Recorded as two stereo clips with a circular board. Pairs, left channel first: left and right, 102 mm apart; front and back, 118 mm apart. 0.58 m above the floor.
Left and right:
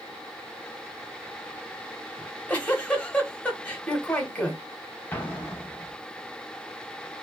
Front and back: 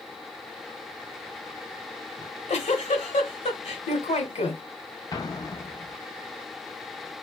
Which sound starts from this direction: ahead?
A giggle, at 2.2 s.